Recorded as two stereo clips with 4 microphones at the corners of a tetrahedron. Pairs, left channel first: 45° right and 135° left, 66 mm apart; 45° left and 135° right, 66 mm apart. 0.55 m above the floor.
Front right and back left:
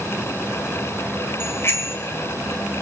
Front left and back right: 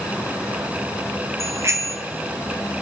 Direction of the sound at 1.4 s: 95° right.